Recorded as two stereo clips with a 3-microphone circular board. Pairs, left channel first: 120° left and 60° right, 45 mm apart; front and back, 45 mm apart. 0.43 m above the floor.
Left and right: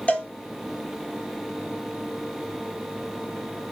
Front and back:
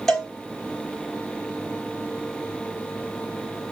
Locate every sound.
0.1 s a cowbell: 80° left, 0.9 m